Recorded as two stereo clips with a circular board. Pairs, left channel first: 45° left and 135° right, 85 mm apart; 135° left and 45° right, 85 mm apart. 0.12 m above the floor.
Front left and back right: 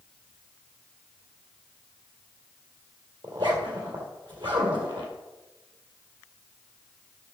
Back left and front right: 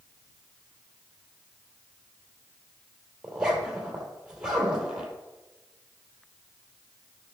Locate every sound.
3.2 s a zipper: 125° right, 2.5 m